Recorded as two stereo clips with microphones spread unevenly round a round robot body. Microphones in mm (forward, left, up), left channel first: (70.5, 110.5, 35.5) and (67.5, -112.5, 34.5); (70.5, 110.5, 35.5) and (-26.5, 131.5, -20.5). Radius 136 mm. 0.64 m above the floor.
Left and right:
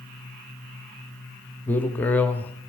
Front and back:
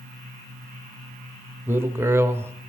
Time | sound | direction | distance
1.7 | a man speaking | 170° left | 0.8 m